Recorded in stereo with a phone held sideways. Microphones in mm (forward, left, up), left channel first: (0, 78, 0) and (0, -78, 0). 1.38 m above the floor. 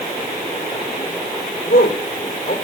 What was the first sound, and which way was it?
A man speaking, 75° left (ahead or behind).